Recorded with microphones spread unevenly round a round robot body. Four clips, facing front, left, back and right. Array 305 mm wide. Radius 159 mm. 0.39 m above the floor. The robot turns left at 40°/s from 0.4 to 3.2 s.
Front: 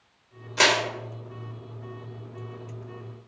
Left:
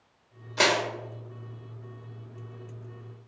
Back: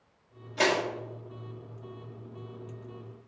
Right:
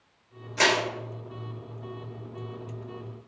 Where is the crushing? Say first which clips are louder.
Even, front 3 dB; 45° left, 1.3 m; by 0.8 s 35° left, 1.3 m.